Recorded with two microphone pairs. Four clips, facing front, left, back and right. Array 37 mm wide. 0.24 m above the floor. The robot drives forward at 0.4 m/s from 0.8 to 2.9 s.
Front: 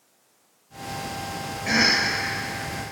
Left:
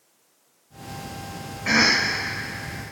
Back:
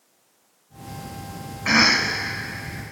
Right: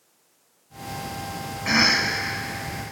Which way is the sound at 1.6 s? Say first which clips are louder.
Left 1 dB, back 3 dB; 165° right.